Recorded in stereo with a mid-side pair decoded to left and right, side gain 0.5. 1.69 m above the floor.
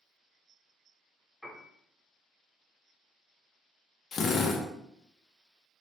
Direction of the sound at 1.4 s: 5° left.